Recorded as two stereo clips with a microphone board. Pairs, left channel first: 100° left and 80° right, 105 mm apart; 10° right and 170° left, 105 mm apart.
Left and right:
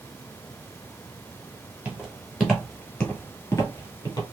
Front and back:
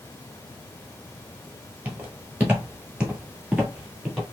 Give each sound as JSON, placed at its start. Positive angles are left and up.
{"t": 1.9, "sound": "footsteps", "azimuth_deg": -145, "distance_m": 1.2}